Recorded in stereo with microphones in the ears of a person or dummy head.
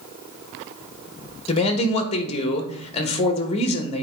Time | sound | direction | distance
1.5 | a man speaking | 35° left (ahead or behind) | 1.5 m